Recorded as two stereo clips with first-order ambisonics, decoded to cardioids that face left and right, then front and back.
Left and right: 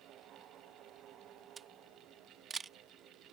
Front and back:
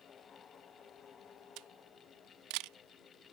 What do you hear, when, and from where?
1.6 s a camera shutter: 160° right